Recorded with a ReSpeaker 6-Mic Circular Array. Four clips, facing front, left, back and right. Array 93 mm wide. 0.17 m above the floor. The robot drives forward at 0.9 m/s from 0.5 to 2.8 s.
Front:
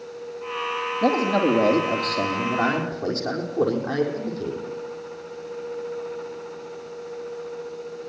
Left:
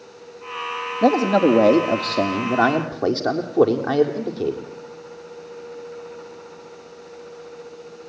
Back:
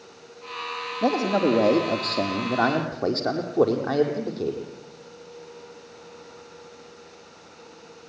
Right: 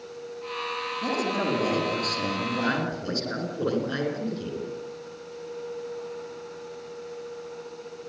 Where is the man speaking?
90° left, 4.5 m; by 4.7 s 110° left, 5 m.